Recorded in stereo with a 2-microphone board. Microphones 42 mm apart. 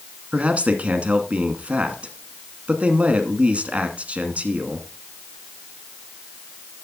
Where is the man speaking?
35° right (ahead or behind), 1.3 m.